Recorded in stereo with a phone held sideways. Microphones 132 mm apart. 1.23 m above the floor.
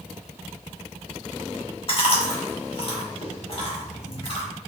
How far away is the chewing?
About 1.4 m.